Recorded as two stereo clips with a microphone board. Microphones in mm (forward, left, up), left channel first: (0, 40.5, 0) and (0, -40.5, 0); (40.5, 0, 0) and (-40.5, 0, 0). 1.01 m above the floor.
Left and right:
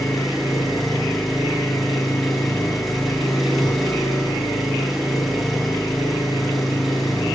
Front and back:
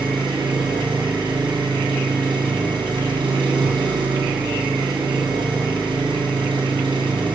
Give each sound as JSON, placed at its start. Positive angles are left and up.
{"t": 0.0, "sound": "an engine running", "azimuth_deg": 180, "distance_m": 6.0}